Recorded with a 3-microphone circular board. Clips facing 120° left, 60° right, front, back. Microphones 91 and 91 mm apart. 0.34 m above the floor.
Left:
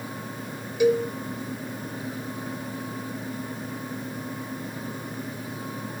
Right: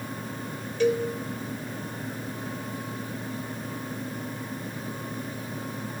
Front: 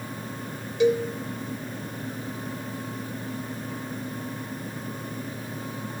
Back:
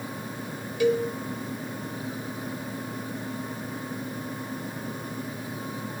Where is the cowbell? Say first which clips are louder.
Left 3 dB, front 2 dB; 50° left, 0.6 m.